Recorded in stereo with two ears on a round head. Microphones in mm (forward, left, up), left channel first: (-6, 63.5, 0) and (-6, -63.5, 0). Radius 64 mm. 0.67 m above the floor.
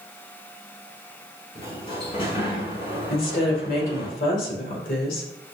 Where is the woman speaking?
65° left (ahead or behind), 2.5 m.